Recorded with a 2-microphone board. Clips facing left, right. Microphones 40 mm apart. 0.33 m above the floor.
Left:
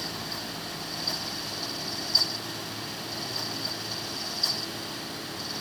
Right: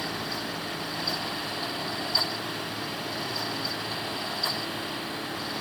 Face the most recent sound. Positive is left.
No sound to turn to.